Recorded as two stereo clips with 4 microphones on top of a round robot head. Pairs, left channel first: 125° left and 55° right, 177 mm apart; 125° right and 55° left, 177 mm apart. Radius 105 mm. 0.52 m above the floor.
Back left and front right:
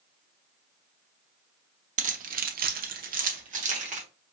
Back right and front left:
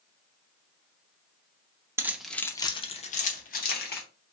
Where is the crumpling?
I don't hear crumpling.